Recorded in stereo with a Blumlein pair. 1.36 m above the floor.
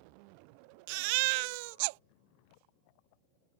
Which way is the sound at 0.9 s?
45° right.